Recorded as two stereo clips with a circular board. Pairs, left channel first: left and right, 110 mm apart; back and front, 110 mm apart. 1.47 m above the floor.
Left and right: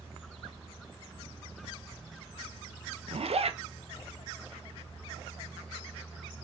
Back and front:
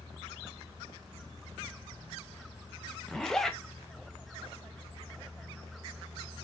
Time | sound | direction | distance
3.1 | a zipper | 95° right | 0.5 m